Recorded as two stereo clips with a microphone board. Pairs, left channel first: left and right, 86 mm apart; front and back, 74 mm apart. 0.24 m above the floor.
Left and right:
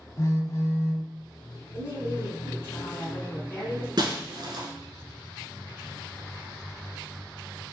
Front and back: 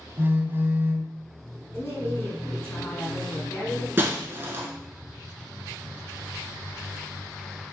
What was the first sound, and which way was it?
A phone buzzing, 130° left.